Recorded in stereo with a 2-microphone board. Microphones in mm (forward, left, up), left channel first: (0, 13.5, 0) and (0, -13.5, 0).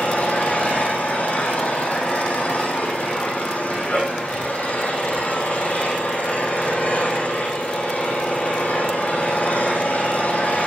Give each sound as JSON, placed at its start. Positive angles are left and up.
{"t": 0.0, "sound": "an engine running", "side_deg": 70, "distance_m": 7.0}